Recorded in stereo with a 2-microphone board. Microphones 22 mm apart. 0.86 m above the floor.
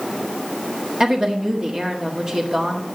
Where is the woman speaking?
35° right (ahead or behind), 1.4 m.